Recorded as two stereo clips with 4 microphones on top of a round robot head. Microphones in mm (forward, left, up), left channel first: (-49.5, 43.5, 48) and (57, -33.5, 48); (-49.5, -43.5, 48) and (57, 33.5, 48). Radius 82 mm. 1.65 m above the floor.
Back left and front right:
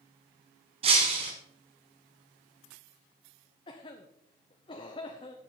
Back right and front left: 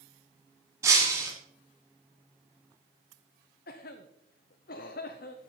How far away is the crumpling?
I don't hear crumpling.